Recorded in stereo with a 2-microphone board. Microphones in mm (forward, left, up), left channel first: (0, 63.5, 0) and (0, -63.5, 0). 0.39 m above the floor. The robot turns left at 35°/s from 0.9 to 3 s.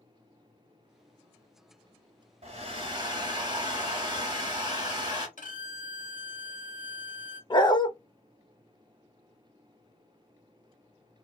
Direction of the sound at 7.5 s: 35° left (ahead or behind).